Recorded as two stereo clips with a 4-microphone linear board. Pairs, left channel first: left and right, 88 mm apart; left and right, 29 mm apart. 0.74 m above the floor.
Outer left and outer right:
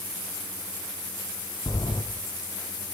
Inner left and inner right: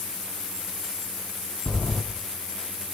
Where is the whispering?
I don't hear whispering.